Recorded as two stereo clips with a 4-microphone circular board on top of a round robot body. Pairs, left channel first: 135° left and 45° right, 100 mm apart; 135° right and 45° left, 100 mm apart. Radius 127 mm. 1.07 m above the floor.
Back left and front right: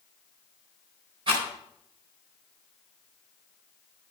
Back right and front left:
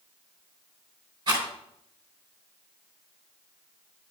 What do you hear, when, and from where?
1.3 s a rattle: straight ahead, 4 m